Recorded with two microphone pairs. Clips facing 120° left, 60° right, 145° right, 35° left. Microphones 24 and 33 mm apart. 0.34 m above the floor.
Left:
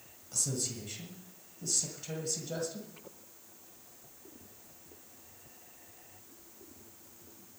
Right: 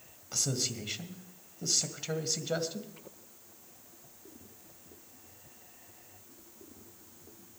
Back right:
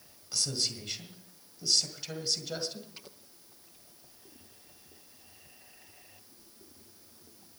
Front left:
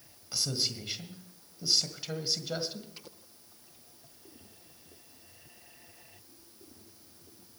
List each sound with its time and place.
0.3 s a man speaking: 35° right, 1.7 m